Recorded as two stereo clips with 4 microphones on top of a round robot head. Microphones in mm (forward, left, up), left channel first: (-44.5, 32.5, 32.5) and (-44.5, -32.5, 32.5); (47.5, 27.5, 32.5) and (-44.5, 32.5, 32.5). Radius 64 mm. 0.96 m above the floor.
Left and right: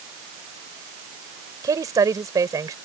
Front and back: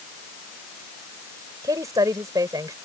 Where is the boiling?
I don't hear boiling.